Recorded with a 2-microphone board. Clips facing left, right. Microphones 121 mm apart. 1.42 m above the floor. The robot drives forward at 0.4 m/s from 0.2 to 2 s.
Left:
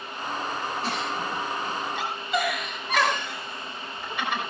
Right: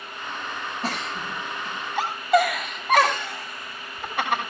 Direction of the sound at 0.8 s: 45° right (ahead or behind).